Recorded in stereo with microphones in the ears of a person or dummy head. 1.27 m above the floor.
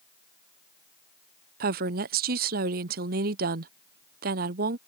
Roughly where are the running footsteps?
I don't hear running footsteps.